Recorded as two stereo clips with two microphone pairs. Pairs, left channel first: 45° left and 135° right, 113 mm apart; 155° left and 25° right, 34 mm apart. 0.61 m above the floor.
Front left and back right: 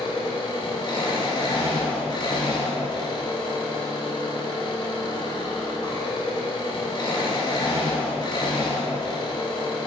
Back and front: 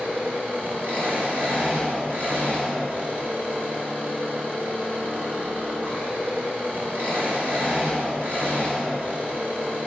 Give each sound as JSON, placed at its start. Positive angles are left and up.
{"t": 0.0, "sound": "an engine running", "azimuth_deg": 0, "distance_m": 2.5}